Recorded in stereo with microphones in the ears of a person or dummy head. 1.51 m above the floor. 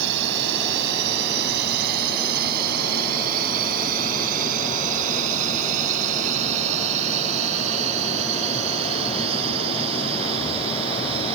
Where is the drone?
65° right (ahead or behind); by 11.3 s 30° right (ahead or behind).